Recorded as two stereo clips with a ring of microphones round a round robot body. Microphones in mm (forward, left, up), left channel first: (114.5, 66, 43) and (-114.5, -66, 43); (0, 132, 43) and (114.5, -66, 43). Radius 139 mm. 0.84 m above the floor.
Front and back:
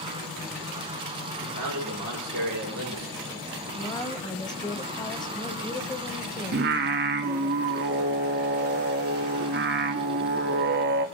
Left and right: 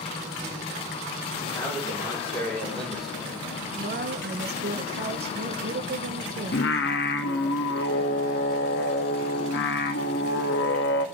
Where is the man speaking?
175° right, 3.5 m; by 3.4 s 140° right, 3.5 m.